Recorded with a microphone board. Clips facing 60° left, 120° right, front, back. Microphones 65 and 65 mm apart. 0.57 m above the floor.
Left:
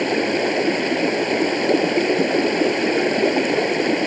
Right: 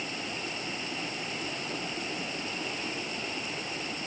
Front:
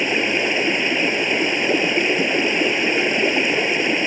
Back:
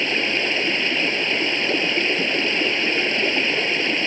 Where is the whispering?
No whispering in this recording.